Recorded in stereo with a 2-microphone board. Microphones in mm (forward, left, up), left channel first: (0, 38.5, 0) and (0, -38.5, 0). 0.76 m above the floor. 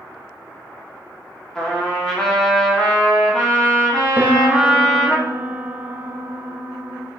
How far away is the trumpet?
About 1.7 m.